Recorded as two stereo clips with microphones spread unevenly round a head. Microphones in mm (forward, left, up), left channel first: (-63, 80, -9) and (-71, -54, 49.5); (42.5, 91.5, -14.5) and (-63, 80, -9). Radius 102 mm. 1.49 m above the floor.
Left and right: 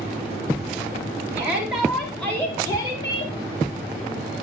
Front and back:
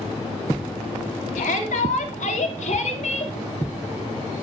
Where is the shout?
15° right, 3.5 m; by 3.3 s 25° left, 3.5 m.